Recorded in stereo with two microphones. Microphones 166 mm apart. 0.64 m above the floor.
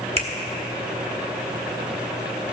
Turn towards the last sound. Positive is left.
turn(degrees=-35)  # may be behind; listen again after turning